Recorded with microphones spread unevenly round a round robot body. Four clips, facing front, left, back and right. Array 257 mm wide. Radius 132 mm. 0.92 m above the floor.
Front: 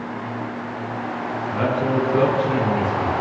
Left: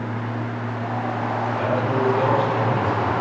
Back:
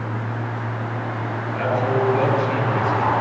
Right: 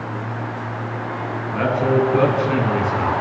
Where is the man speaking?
40° right, 7.5 m; by 3.1 s 55° right, 7.5 m.